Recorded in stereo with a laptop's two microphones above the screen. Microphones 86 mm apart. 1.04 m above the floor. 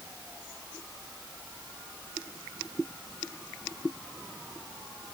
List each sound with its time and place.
Only background noise.